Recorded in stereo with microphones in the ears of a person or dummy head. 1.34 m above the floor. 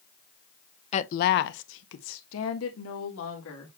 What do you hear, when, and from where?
0.9 s a woman speaking: 40° left (ahead or behind), 0.5 m; by 3.7 s 70° left (ahead or behind), 2 m